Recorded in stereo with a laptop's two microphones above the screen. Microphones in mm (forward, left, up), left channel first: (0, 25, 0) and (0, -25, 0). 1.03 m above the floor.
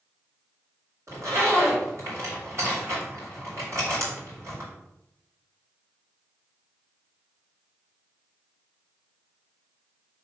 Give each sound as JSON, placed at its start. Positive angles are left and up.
{"t": 1.1, "sound": "a zipper", "side_deg": -75, "distance_m": 2.5}